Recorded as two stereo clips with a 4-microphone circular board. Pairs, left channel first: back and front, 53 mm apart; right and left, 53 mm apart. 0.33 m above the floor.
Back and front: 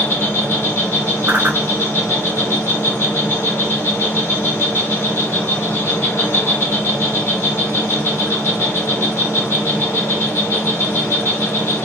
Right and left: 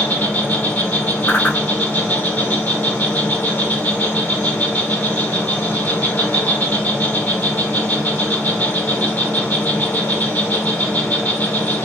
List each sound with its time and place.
0.0 s an insect: 145° right, 1.1 m
1.3 s a whoosh: 45° right, 0.7 m